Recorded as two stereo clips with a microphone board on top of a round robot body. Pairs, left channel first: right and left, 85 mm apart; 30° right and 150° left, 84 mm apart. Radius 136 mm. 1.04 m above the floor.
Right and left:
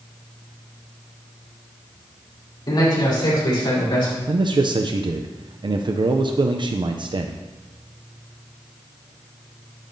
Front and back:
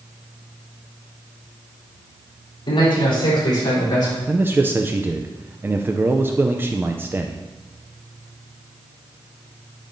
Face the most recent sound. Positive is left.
turn(degrees=85)